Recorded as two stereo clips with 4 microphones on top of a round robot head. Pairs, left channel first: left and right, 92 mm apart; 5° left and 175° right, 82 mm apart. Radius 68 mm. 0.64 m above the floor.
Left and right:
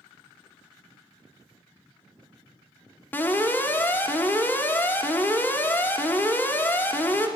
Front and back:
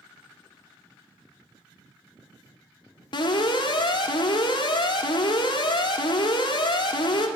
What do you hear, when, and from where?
3.1 s an alarm: 25° left, 1.5 m